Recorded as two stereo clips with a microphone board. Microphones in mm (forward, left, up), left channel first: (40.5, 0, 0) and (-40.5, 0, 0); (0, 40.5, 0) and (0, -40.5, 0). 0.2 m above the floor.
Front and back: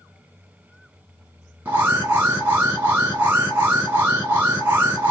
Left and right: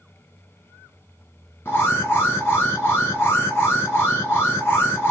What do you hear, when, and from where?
1.6 s an alarm: 135° left, 2 m